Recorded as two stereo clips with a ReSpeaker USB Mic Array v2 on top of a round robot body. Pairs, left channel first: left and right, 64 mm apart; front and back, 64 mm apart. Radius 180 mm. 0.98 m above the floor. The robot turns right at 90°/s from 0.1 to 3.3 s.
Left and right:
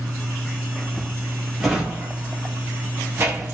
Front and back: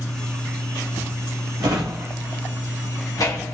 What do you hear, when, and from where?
1.6 s a drawer: straight behind, 0.9 m; by 3.5 s 25° right, 0.9 m